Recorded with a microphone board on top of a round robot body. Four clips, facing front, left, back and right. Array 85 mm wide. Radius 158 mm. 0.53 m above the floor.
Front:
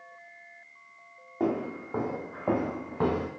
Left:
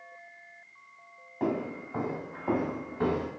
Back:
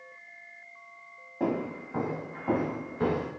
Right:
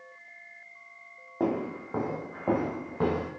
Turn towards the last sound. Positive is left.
turn(degrees=-30)